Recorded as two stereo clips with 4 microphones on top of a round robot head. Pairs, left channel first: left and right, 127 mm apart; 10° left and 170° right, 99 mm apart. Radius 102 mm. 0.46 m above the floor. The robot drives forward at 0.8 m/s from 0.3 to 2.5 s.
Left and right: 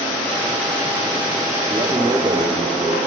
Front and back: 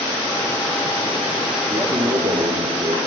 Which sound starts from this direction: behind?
A man speaking, at 1.7 s.